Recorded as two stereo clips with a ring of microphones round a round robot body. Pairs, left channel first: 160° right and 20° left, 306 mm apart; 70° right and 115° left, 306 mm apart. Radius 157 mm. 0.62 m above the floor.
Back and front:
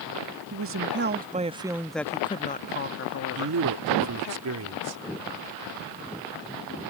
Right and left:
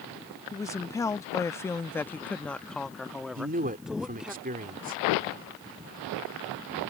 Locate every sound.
0.5 s a woman speaking: 10° left; by 4.3 s 160° right
3.4 s a man speaking: 50° left